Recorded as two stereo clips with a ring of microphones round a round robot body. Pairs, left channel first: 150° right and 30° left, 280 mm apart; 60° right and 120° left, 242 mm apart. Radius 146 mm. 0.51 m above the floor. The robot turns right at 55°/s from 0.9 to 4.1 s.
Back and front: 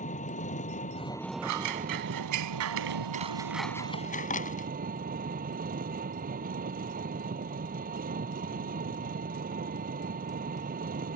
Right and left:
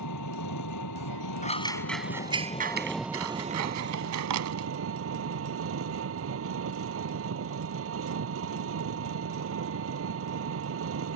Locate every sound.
0.0 s an engine running: 85° right; by 11.2 s 90° left
1.4 s scissors: straight ahead; by 4.7 s 145° left